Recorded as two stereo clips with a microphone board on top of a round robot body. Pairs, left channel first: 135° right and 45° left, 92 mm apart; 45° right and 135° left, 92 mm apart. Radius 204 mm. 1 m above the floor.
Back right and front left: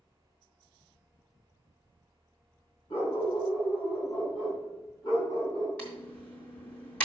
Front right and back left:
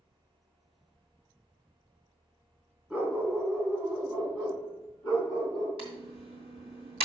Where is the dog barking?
155° right, 3.5 m; by 5.7 s 165° left, 4.5 m.